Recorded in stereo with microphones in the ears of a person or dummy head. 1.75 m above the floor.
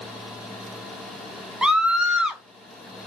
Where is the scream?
5° right (ahead or behind), 0.6 m.